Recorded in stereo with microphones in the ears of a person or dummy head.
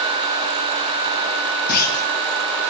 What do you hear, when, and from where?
1.7 s a clunk: 55° left (ahead or behind), 1.7 m